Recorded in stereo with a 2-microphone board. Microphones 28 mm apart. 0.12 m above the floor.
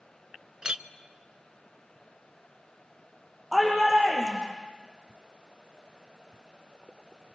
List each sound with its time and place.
0.6 s a clink: 30° right (ahead or behind), 0.7 m
3.5 s a shout: 10° right (ahead or behind), 7 m